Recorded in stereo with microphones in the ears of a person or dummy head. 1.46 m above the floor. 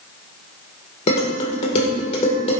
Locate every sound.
1.1 s dishes clattering: 40° left (ahead or behind), 3.5 m